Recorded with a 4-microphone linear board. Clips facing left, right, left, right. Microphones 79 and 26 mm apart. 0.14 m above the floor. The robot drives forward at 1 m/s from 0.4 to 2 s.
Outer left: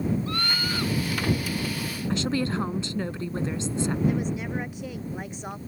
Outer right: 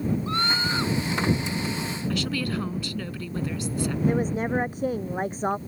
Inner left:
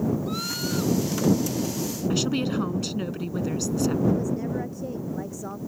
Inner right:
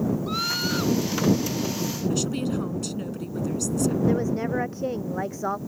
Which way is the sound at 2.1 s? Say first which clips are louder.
Outer left 3 dB, inner left 4 dB; 25° left (ahead or behind).